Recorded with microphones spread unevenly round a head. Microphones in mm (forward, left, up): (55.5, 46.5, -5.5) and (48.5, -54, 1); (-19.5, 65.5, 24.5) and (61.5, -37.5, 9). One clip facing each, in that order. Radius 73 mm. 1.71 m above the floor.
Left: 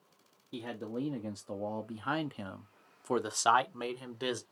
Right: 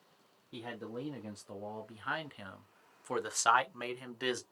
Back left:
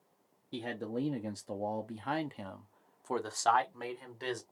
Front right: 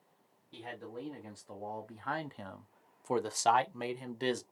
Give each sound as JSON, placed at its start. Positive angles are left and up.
{"t": 0.5, "sound": "a man speaking", "azimuth_deg": 160, "distance_m": 1.0}